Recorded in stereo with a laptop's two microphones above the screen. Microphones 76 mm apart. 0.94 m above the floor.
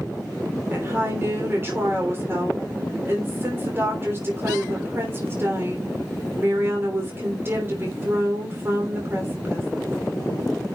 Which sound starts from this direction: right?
A woman speaking, at 0.7 s.